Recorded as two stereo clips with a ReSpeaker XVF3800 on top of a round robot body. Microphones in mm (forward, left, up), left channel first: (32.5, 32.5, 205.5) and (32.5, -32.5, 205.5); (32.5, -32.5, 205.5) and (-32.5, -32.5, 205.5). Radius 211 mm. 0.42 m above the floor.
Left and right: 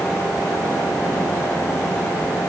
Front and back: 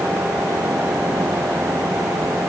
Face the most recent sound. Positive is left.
No sound to turn to.